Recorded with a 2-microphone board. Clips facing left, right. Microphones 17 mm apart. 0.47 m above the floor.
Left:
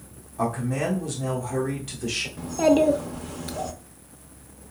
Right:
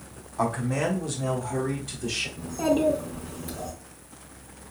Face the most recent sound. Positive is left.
turn(degrees=40)  # may be behind; listen again after turning